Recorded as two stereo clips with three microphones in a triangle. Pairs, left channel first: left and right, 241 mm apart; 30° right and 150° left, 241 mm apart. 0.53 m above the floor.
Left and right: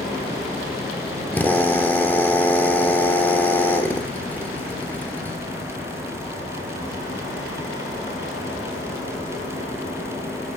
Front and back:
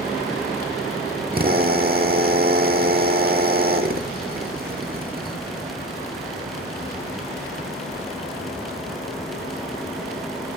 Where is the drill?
170° left, 1.3 m.